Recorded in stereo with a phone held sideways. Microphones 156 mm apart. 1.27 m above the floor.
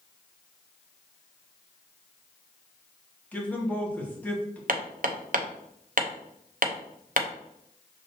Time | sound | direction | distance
3.3 | a man speaking | 10° left (ahead or behind) | 1.6 m
4.7 | hammering | 65° right (ahead or behind) | 0.7 m